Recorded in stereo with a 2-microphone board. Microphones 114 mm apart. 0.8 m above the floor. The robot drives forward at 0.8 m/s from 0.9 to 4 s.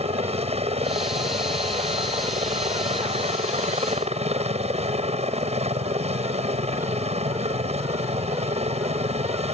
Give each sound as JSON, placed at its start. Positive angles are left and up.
{"t": 0.0, "sound": "a helicopter", "side_deg": -65}